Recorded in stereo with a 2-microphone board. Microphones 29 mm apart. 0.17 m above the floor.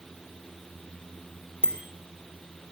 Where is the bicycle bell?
35° left (ahead or behind), 3 m.